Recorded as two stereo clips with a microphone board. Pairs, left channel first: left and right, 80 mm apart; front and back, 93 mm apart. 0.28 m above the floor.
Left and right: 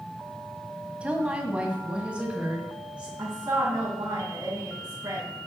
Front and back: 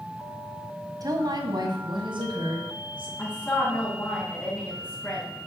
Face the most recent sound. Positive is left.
turn(degrees=-65)